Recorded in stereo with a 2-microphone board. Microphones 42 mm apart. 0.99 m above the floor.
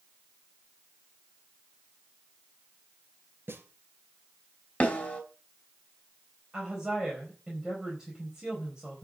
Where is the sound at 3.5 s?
60° right (ahead or behind), 3.5 m.